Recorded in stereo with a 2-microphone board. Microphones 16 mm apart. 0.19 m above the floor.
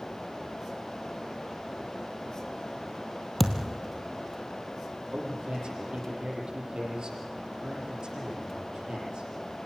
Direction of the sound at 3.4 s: 10° left (ahead or behind).